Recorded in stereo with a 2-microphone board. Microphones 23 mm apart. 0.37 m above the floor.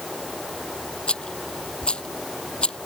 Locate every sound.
0.0 s running water: 5° right (ahead or behind)
1.1 s a rattle: 45° left (ahead or behind)